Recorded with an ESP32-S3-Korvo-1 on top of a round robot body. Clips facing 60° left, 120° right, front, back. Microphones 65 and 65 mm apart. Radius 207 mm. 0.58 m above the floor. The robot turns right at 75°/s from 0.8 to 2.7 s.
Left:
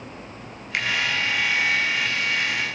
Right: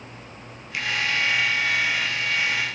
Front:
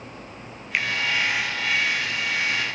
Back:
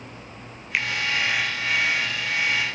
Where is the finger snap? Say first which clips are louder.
Left 3 dB, even; 90° left, 2.5 m; by 0.9 s 95° left, 2.5 m.